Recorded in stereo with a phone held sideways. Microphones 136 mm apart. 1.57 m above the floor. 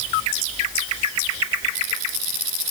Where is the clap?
No clap in this recording.